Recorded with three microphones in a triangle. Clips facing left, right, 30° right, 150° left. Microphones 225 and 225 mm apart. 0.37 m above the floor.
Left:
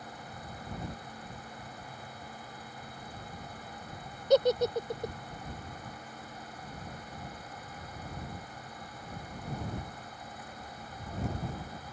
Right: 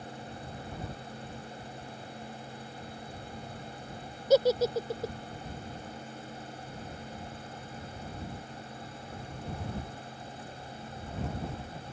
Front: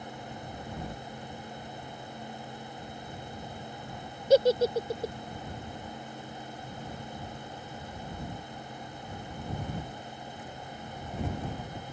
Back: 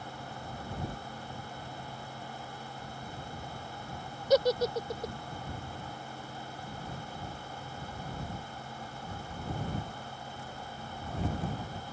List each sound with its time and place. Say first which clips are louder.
4.3 s a giggle: right 1 dB, front 4 dB; 15° right